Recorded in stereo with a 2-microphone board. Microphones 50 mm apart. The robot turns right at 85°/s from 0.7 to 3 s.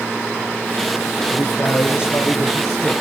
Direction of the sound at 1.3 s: 55° left.